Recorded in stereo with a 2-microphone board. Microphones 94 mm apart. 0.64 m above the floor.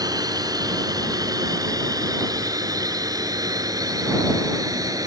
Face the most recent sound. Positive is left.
turn(degrees=-40)  # may be behind; listen again after turning